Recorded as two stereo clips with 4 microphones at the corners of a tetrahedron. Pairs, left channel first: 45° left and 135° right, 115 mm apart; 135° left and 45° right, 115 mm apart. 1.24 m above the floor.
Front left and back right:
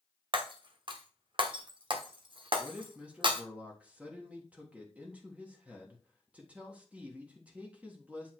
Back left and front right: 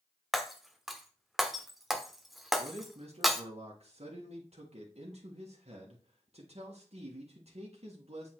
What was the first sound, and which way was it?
Breaking glass, 130° right.